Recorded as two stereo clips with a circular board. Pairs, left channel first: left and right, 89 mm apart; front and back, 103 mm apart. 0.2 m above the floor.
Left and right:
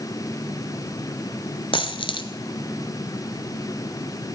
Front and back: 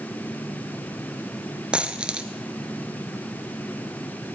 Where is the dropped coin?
100° left, 0.8 m.